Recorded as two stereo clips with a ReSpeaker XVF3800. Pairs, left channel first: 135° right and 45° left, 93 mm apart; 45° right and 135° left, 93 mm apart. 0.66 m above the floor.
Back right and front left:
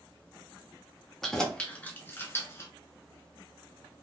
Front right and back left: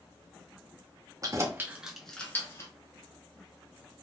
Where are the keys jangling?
140° left, 0.7 m; by 2.7 s 85° right, 0.7 m.